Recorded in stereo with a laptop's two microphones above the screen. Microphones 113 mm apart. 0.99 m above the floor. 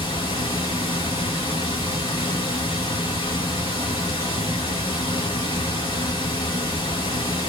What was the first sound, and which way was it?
Running water, 50° left (ahead or behind).